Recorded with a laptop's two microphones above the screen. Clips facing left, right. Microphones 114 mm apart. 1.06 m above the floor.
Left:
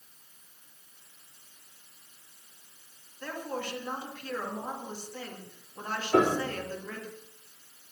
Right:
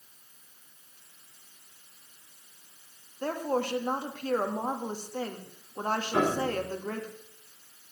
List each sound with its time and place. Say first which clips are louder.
3.2 s a woman speaking: right 7 dB; 40° right (ahead or behind), 1.7 m
6.1 s a piano: left 4 dB; 75° left (ahead or behind), 4 m